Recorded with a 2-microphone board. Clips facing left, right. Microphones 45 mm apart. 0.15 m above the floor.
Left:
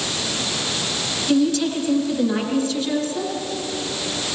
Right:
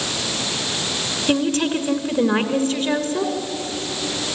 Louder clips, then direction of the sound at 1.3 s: Left 1 dB; 40° right (ahead or behind).